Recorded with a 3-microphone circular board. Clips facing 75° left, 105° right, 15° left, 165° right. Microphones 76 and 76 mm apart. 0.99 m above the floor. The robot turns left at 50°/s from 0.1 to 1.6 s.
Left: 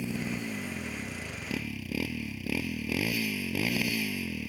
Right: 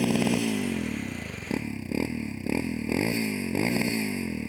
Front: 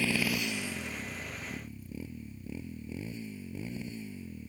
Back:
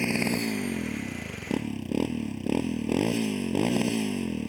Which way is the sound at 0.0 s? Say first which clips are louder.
Right 10 dB, back 4 dB; 95° right.